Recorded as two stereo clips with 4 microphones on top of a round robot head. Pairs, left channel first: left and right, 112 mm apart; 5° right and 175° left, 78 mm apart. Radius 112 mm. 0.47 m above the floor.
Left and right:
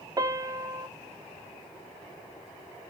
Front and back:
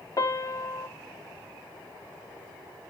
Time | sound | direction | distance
0.2 | a piano | 35° right | 0.6 m